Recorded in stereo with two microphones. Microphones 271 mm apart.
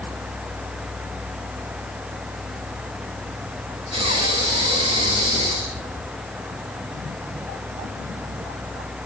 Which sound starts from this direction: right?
Breathing, at 3.9 s.